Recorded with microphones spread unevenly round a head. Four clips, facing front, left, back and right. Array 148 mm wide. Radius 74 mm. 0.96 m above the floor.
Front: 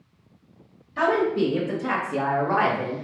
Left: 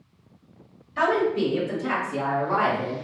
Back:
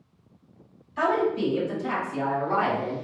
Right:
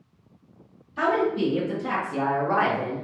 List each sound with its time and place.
1.0 s a woman speaking: 45° left, 1.7 m; by 3.0 s 45° right, 1.3 m